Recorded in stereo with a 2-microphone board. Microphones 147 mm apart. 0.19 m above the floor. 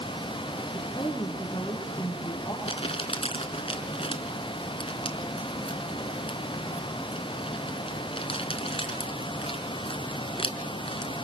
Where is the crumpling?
40° left (ahead or behind), 3 m.